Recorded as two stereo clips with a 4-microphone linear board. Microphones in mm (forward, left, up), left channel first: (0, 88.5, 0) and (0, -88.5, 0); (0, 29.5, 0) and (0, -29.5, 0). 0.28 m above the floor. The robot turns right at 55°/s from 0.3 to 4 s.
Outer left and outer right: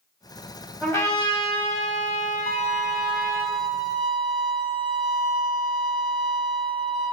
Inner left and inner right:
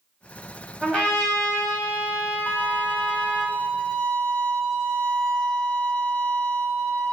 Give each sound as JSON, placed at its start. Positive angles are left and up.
{"t": 0.8, "sound": "a trumpet", "azimuth_deg": 15, "distance_m": 1.3}
{"t": 2.5, "sound": "a violin", "azimuth_deg": 80, "distance_m": 1.8}